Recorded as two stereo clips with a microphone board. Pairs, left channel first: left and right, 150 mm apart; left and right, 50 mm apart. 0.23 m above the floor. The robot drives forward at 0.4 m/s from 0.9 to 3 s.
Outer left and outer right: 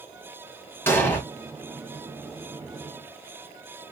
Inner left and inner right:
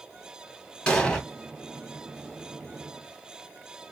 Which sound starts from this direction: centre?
An explosion, at 0.9 s.